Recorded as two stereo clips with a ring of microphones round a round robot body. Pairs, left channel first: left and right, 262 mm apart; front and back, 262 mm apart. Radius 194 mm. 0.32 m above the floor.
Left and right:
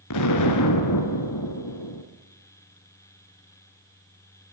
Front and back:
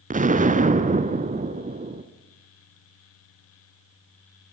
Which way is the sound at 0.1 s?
120° left.